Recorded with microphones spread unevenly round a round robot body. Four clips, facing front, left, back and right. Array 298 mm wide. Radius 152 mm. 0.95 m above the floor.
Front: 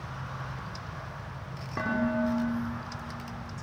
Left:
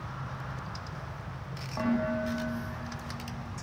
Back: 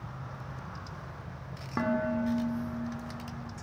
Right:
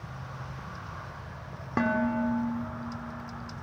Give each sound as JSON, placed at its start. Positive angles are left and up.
{"t": 1.8, "sound": "dishes clattering", "azimuth_deg": -115, "distance_m": 2.0}